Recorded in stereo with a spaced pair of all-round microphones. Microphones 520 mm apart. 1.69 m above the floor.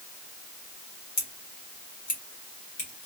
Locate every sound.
1.2 s scissors: 55° left (ahead or behind), 1.3 m